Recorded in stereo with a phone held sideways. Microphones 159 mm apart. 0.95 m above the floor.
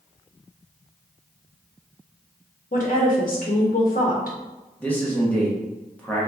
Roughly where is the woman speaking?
Left.